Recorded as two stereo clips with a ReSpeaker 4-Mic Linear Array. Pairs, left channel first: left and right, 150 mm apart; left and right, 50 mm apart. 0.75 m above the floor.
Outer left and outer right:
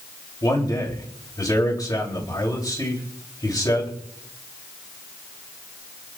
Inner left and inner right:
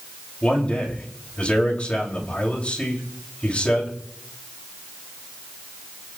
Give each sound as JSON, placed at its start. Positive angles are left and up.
{"t": 0.4, "sound": "a man speaking", "side_deg": 25, "distance_m": 3.0}